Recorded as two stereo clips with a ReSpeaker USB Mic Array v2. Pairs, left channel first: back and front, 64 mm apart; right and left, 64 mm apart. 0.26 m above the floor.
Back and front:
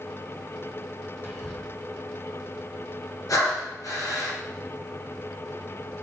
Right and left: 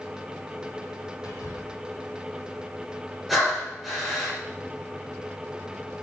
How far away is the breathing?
About 5 m.